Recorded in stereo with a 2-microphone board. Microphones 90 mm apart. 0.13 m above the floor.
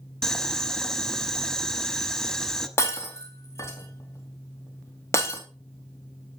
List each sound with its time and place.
0.2 s boiling: 5° left (ahead or behind), 0.8 m
2.8 s breaking glass: 30° left (ahead or behind), 2.5 m